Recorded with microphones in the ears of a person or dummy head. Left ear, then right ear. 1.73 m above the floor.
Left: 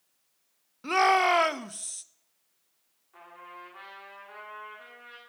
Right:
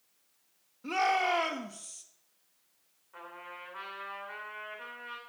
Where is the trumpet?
10° right (ahead or behind), 2.5 m.